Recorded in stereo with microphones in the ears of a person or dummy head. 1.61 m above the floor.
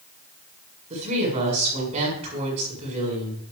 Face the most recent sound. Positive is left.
turn(degrees=-35)  # may be behind; listen again after turning